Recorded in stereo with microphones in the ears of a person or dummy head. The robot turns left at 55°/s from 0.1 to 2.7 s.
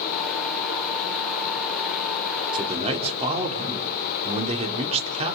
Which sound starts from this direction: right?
A man speaking, at 2.5 s.